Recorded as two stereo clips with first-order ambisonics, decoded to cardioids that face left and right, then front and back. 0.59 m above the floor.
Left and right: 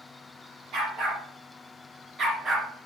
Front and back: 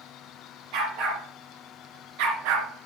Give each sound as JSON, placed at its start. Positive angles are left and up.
{"t": 0.7, "sound": "a dog barking", "azimuth_deg": -145, "distance_m": 3.0}